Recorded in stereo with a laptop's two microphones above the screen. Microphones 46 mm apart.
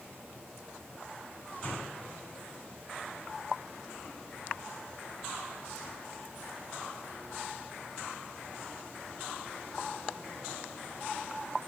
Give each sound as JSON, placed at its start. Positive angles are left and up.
{"t": 1.5, "sound": "a door slam", "side_deg": 30, "distance_m": 9.5}